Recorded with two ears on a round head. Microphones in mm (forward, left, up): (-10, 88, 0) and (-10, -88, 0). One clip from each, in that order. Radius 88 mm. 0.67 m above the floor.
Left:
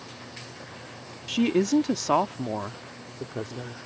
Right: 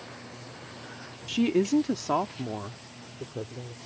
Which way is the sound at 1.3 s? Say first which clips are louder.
Left 2 dB; 5° left (ahead or behind).